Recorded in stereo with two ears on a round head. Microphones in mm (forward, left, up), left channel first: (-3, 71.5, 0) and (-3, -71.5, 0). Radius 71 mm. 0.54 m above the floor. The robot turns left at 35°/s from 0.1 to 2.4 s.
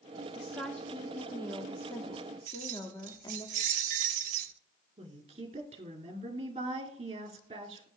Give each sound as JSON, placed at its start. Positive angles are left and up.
{"t": 0.3, "sound": "a woman speaking", "side_deg": 0, "distance_m": 0.9}
{"t": 2.5, "sound": "keys jangling", "side_deg": -50, "distance_m": 0.8}
{"t": 5.0, "sound": "a woman speaking", "side_deg": -35, "distance_m": 1.6}